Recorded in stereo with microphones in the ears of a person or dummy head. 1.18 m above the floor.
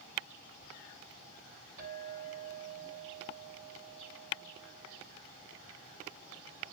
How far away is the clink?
About 7 m.